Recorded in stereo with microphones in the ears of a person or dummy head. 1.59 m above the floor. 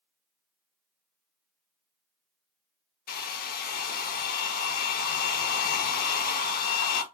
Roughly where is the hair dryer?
Left.